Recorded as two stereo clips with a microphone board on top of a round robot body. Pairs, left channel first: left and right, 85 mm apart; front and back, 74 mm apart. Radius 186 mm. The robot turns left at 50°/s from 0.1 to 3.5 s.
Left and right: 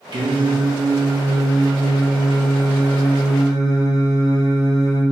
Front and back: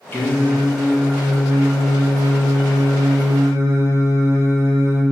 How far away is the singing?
About 1.2 m.